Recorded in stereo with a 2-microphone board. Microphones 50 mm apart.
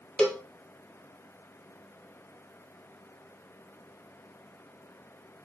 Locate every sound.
0.2 s a cowbell: 15° left (ahead or behind), 1.7 m